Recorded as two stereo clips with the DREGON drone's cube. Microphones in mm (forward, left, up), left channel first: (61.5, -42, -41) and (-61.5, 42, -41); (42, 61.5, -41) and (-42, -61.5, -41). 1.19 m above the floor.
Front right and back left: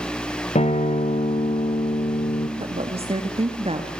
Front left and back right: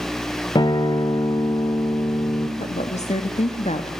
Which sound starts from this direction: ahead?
A guitar, at 0.6 s.